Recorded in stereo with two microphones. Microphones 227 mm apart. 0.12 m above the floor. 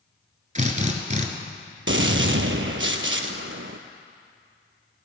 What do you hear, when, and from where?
0.6 s a drill: 35° right (ahead or behind), 1.2 m
1.9 s a gunshot: 60° right (ahead or behind), 0.8 m